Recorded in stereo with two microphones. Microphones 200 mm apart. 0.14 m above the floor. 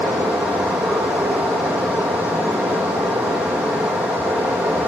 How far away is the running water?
About 0.9 m.